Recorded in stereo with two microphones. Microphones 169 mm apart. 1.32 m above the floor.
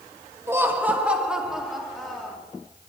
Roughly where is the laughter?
Centre.